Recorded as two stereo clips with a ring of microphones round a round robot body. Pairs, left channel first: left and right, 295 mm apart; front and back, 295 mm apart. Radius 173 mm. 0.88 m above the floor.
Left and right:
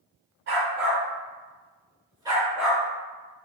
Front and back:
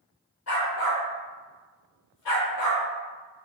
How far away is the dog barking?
About 1.7 m.